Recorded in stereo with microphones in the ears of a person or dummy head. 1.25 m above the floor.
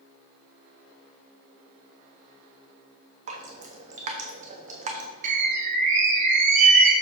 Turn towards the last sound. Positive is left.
turn(degrees=-45)  # may be behind; listen again after turning